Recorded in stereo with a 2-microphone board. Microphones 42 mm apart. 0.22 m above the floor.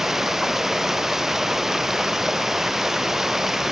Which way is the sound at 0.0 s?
10° right (ahead or behind).